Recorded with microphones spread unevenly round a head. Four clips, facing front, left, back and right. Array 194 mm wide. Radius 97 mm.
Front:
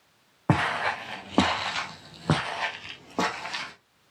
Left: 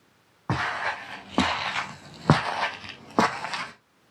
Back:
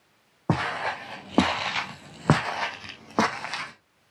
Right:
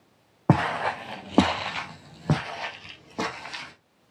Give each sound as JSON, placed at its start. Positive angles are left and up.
{"t": 0.5, "sound": "footsteps", "azimuth_deg": -90, "distance_m": 2.0}